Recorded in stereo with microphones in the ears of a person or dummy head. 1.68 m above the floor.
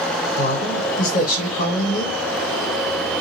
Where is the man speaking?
50° left (ahead or behind), 1.1 m.